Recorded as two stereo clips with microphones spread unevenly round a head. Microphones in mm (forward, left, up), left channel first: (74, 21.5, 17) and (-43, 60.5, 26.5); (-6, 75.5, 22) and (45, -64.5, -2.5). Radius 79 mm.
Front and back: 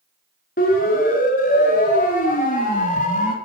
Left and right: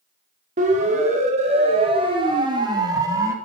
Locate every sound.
0.6 s a siren: 30° right, 5 m; by 3.3 s straight ahead, 4.5 m